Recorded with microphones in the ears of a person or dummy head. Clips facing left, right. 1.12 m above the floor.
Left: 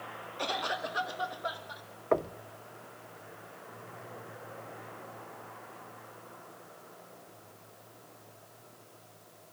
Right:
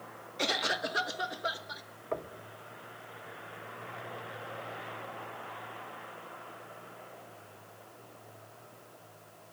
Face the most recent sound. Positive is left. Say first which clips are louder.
# left 8 dB
turn(degrees=60)  # may be behind; listen again after turning